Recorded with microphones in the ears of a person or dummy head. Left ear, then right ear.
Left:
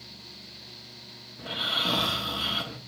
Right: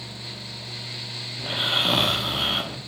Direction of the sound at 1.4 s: 10° right (ahead or behind).